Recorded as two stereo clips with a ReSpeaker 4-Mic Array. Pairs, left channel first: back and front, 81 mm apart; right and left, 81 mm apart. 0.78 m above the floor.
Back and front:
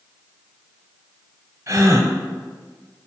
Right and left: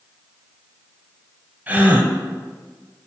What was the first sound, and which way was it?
A gasp, 30° left.